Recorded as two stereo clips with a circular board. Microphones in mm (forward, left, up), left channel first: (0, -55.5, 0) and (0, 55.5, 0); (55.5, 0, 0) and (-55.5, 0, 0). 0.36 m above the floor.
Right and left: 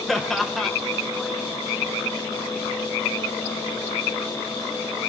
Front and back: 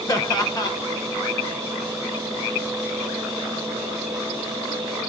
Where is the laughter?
Straight ahead, 1.2 m.